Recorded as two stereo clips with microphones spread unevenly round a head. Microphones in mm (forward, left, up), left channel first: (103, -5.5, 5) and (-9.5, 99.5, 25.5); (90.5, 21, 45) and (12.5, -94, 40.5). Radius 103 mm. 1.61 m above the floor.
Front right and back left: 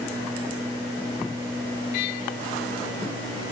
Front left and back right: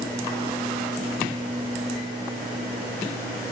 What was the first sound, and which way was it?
Only background noise.